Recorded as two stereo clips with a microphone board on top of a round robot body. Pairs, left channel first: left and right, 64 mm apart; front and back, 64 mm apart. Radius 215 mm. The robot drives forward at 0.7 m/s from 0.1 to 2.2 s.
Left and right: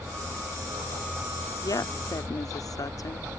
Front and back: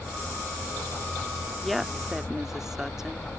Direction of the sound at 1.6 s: 85° left.